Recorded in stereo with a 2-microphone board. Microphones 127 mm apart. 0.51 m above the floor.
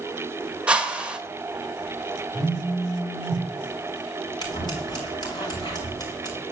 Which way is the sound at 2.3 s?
35° right (ahead or behind).